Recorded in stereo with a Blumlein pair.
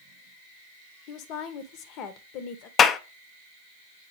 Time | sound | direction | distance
1.1 | a woman speaking | 40° left | 0.9 m
2.8 | a clap | 25° left | 0.5 m